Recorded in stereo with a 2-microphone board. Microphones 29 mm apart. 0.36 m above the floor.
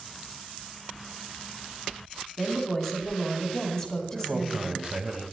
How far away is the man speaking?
About 1.8 m.